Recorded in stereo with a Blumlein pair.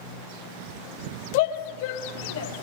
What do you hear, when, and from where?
1.3 s a shout: 50° left, 3.5 m; by 2.5 s 55° left, 3 m